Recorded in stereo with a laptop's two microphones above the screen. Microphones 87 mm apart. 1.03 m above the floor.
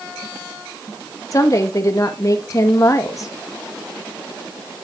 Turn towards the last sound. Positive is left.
turn(degrees=40)  # may be behind; listen again after turning